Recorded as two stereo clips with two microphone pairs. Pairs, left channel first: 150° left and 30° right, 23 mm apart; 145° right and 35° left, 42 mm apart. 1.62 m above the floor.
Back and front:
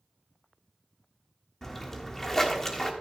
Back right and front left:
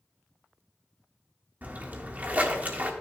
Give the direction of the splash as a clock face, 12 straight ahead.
9 o'clock.